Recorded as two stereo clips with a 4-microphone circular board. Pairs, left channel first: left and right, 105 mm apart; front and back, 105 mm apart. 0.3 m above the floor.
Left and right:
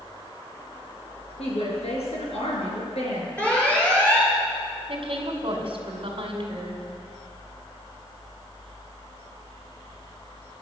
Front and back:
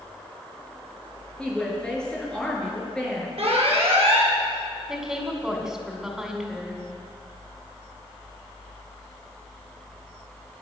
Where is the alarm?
165° left, 5 m.